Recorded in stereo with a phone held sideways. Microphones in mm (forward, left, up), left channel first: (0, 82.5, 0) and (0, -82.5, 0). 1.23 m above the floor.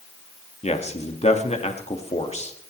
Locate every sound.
0.6 s a man speaking: 40° left (ahead or behind), 1.8 m